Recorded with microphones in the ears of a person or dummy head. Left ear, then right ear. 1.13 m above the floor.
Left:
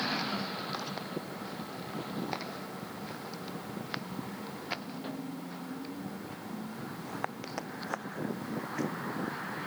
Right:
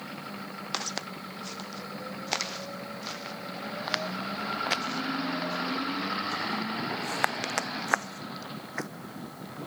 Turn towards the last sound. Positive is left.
turn(degrees=-50)  # may be behind; listen again after turning